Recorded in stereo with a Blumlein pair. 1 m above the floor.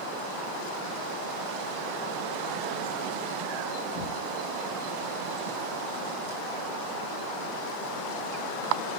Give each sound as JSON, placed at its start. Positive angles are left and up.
{"t": 3.9, "sound": "knocking", "azimuth_deg": 50, "distance_m": 1.2}